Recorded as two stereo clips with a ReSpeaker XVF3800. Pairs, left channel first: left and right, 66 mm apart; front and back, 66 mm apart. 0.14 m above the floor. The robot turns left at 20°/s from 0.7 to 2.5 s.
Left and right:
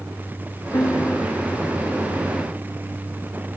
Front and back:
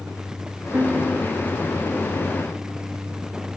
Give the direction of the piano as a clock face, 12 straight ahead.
8 o'clock.